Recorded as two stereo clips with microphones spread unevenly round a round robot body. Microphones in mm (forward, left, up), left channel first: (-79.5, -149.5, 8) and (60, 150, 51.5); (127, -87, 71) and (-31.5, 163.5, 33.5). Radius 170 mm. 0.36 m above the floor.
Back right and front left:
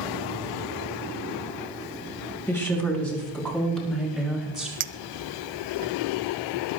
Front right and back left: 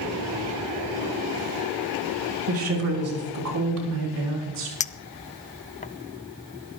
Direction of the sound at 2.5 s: 165° left.